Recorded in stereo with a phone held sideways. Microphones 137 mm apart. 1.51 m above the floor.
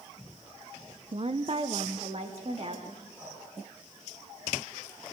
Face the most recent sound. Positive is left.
turn(degrees=-15)  # may be behind; listen again after turning